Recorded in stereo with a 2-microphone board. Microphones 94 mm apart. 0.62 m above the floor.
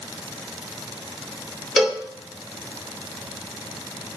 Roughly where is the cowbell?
Centre.